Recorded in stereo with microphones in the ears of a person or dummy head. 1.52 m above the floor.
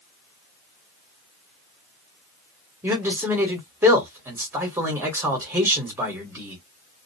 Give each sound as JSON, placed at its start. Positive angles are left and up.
{"t": 2.8, "sound": "a man speaking", "side_deg": -10, "distance_m": 1.0}